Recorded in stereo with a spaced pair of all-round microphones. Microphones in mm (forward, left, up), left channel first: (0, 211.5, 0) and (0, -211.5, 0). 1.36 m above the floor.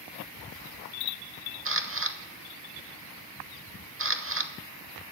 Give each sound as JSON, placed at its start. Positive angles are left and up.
{"t": 1.6, "sound": "a camera shutter", "side_deg": -30, "distance_m": 0.8}